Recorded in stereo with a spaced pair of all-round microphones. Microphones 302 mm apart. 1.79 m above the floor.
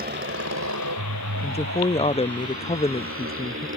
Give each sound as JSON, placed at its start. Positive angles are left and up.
{"t": 0.0, "sound": "a motorcycle", "side_deg": -30}
{"t": 1.4, "sound": "a woman speaking", "side_deg": 20}